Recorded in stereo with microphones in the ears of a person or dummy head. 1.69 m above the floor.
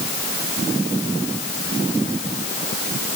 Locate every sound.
Only background noise.